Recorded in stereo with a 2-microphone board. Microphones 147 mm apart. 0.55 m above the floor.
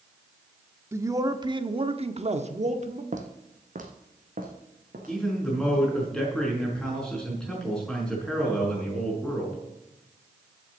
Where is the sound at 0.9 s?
20° right (ahead or behind), 0.9 m; by 3.0 s 50° right (ahead or behind), 1.1 m.